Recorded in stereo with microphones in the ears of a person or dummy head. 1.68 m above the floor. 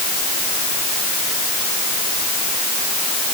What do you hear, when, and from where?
Only background noise.